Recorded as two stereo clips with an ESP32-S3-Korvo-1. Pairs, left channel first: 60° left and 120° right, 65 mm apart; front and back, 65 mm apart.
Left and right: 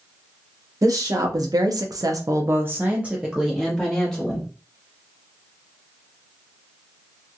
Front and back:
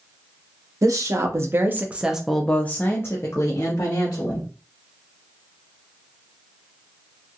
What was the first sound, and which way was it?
A woman speaking, 150° right.